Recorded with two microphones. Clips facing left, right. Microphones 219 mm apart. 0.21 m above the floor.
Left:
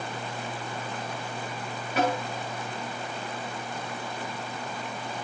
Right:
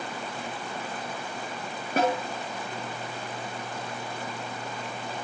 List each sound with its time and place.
2.0 s a snare drum: 45° right (ahead or behind), 7.5 m